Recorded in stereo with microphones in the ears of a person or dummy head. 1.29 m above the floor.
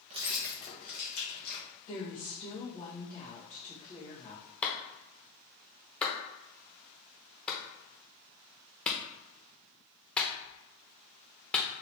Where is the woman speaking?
45° left (ahead or behind), 1.8 m.